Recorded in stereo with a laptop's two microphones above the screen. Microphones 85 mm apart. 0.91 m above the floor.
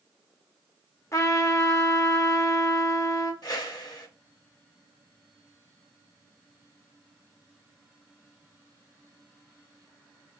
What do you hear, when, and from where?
1.1 s a trumpet: 40° left (ahead or behind), 0.5 m
3.4 s a whoosh: 55° left (ahead or behind), 1.0 m